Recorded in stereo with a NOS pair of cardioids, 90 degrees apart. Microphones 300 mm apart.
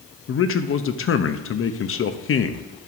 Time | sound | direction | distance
0.3 | a man speaking | 45° left | 0.8 m